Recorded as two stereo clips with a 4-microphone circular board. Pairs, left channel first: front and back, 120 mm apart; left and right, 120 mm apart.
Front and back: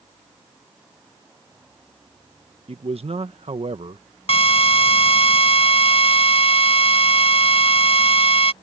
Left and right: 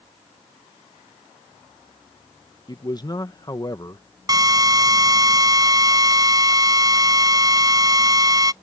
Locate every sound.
2.7 s a man speaking: 145° left
4.3 s a drill: 35° right